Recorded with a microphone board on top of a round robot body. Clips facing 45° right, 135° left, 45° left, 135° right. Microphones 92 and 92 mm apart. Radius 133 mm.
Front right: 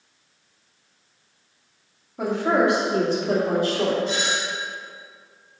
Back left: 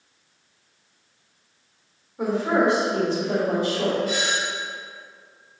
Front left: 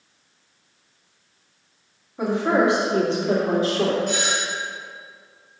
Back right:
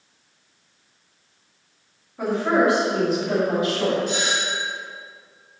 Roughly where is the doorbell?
Ahead.